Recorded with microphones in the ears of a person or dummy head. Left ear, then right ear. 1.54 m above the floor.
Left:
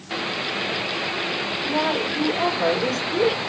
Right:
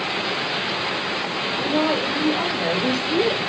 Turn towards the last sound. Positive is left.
turn(degrees=30)  # may be behind; listen again after turning